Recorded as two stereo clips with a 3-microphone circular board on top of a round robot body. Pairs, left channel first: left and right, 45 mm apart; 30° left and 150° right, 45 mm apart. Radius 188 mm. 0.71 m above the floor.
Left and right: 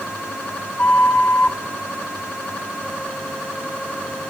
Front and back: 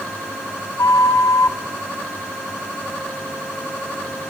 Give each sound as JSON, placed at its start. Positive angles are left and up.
{"t": 0.8, "sound": "a flute", "azimuth_deg": 30, "distance_m": 1.7}